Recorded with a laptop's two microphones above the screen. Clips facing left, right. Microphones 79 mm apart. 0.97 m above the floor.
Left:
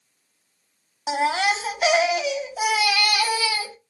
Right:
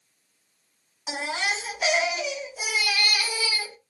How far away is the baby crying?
About 0.9 m.